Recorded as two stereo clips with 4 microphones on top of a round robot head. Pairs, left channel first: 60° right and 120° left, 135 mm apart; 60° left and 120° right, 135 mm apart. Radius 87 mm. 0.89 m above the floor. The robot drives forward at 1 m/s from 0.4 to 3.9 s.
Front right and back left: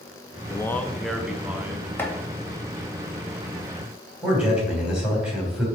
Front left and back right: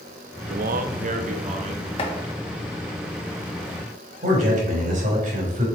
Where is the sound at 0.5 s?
120° right, 0.8 m; by 1.9 s 160° right, 1.9 m.